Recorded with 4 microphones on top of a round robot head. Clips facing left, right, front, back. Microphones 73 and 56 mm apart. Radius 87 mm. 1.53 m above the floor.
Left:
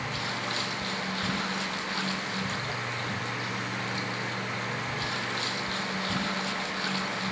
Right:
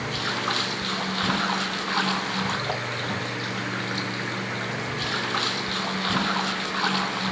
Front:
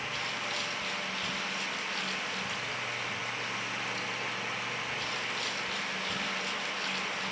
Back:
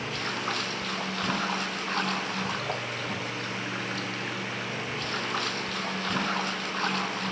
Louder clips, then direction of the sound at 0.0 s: Right 5 dB, back 4 dB; 130° right.